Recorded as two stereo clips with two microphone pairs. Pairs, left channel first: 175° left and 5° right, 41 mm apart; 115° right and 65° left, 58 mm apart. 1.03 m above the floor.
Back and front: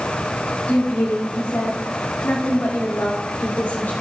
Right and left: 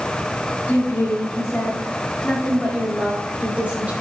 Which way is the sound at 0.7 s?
155° right.